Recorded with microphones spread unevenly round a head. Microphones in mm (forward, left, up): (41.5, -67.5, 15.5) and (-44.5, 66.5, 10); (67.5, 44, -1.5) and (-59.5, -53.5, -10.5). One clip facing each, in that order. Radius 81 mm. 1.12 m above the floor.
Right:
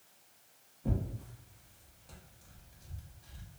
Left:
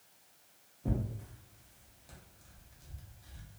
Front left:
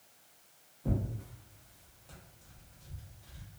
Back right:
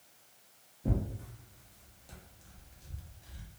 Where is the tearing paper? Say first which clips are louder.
Even, even; 175° right, 0.6 m.